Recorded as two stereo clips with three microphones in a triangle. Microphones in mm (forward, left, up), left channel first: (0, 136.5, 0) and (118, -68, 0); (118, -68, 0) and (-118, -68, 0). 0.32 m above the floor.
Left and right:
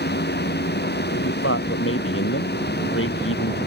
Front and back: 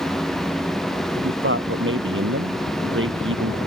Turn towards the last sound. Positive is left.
turn(degrees=150)